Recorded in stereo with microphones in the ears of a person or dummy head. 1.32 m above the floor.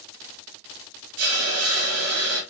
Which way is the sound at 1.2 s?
85° right.